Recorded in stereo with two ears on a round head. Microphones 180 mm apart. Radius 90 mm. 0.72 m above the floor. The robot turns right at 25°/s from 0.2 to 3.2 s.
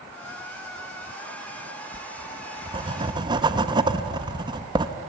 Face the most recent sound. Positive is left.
turn(degrees=-20)  # may be behind; listen again after turning